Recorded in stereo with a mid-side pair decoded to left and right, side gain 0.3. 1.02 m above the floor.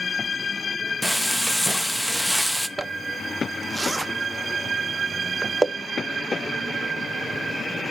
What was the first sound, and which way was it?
Frying, 5° left.